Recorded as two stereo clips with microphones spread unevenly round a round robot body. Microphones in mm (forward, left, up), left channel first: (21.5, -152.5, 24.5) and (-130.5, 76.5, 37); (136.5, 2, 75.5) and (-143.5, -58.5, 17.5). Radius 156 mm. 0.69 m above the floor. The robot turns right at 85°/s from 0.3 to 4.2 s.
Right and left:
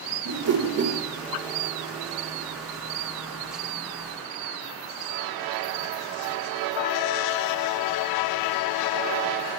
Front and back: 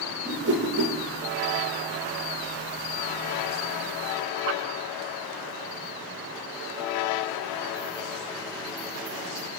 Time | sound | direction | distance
0.2 | a whoosh | 130° left | 3 m